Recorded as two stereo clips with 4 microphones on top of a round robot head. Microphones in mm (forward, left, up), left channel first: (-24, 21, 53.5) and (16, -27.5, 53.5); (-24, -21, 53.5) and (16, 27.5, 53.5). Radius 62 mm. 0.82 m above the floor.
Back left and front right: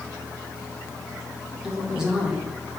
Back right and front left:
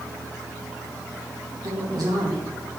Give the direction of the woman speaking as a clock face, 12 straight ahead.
11 o'clock.